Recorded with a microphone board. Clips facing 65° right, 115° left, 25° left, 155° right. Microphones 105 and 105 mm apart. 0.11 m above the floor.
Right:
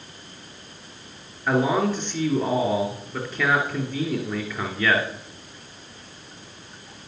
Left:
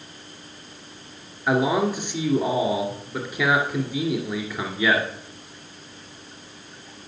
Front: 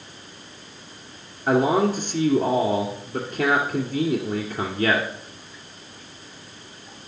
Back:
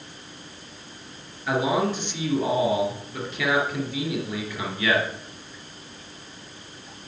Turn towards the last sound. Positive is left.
turn(degrees=35)